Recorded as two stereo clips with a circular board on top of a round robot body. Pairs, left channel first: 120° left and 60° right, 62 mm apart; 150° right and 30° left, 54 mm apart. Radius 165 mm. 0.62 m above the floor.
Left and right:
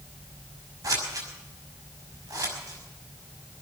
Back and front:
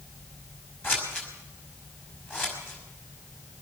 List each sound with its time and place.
0.8 s scissors: 95° right, 5.5 m